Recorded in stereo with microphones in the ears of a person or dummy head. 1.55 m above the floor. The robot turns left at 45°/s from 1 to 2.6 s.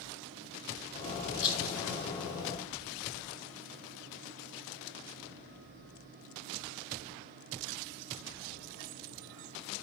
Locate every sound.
1.4 s a rattle: 25° left (ahead or behind), 2.5 m; by 1.8 s 5° left (ahead or behind), 2.5 m